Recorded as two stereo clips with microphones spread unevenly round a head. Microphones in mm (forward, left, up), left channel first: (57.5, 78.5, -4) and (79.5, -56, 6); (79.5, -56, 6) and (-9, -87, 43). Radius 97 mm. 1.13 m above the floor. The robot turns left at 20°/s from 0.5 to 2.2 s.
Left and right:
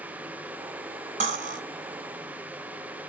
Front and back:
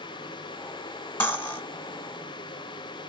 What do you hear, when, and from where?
1.2 s cutlery clinking: 55° right, 2 m; by 1.6 s 60° right, 2 m